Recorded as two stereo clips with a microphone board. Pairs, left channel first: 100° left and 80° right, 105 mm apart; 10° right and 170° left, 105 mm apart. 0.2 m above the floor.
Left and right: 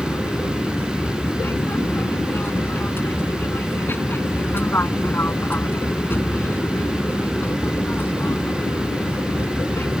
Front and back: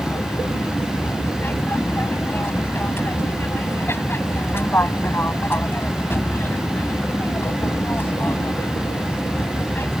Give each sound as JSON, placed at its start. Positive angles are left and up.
{"t": 0.0, "sound": "an aircraft", "azimuth_deg": 45}